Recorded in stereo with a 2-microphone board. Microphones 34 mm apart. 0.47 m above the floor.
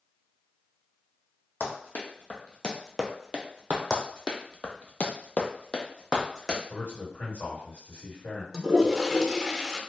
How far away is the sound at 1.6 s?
About 1.2 m.